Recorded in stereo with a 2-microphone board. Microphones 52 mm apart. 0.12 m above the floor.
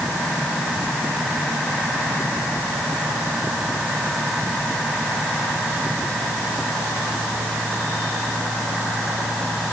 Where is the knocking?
I don't hear knocking.